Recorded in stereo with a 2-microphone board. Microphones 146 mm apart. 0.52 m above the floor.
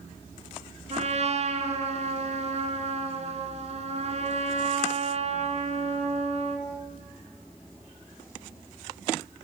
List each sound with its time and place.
0.9 s a trumpet: 50° right (ahead or behind), 2.5 m